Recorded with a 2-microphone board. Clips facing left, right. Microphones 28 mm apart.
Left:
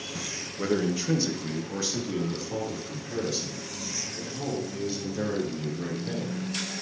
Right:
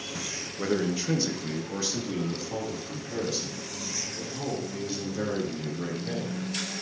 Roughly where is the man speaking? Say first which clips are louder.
Left 1 dB; centre.